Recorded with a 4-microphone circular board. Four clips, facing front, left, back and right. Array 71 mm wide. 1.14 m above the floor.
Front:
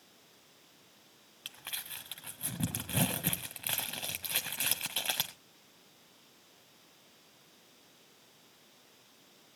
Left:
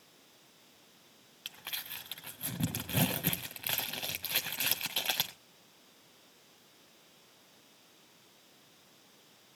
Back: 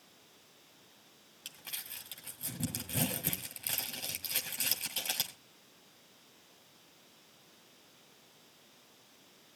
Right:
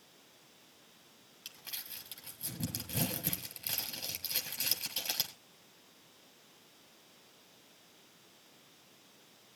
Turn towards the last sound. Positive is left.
turn(degrees=50)